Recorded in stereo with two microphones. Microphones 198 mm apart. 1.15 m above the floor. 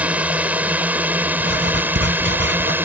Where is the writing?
90° right.